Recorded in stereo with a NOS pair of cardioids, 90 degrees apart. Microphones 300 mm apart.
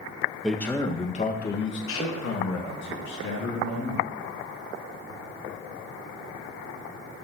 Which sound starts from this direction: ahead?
A man speaking, at 0.4 s.